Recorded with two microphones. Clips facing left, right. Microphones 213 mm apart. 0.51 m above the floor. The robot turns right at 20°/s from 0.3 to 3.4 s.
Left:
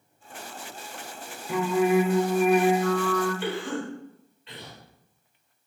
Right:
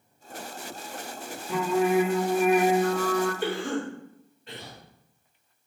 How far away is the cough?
About 1.9 m.